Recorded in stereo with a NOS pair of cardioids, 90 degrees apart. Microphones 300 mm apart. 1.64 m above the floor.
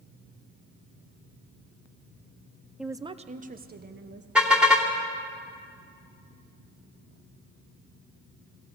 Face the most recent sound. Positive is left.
turn(degrees=-5)